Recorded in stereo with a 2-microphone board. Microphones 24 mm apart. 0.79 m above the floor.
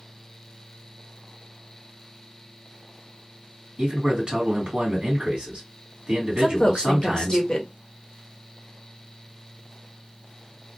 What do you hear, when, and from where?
3.8 s a man speaking: 40° right (ahead or behind), 1.5 m
6.4 s a woman speaking: 35° left (ahead or behind), 0.7 m